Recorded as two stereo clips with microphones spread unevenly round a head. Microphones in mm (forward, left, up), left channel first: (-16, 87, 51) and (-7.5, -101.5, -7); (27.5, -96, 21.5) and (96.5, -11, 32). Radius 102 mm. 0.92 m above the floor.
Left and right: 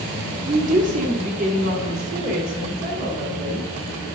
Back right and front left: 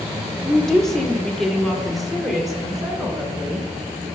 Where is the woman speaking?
45° right, 1.6 m; by 3.7 s 35° right, 3.5 m.